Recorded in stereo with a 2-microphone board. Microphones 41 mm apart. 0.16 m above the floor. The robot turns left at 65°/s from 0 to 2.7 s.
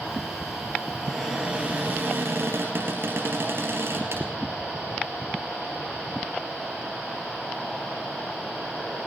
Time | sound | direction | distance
1.0 | a cupboard door | 10° left | 2.5 m